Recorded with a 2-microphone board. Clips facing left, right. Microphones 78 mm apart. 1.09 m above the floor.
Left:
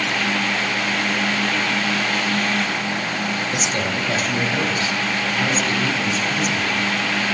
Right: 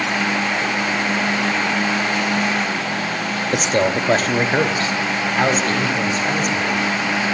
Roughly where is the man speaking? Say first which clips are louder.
Right 5 dB; right.